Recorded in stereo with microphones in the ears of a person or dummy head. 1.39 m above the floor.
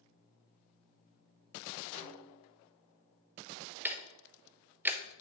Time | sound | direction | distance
1.9 | a snare drum | 60° left (ahead or behind) | 3.5 m
3.9 | ticking | 10° right (ahead or behind) | 0.6 m